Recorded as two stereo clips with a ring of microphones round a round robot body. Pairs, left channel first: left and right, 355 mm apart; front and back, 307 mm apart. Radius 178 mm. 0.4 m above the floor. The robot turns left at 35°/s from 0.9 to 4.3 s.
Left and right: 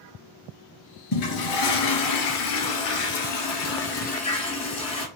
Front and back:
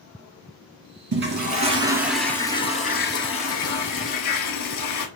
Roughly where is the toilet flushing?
Behind left.